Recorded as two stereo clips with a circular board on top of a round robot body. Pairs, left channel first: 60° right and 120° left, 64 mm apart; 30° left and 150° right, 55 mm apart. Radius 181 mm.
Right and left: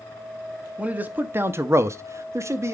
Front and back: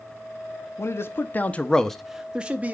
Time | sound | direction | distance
0.8 | a man speaking | 55° left | 1.1 m